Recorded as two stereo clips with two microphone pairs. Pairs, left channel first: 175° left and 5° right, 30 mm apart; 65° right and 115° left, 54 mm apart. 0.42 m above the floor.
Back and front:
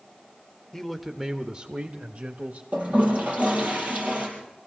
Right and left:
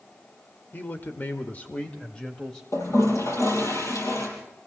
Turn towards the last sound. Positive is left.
turn(degrees=-45)